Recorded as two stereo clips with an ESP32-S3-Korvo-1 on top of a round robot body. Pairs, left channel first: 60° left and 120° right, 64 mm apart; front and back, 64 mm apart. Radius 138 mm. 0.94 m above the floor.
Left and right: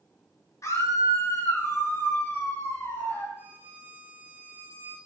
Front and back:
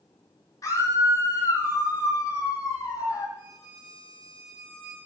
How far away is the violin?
About 5.5 m.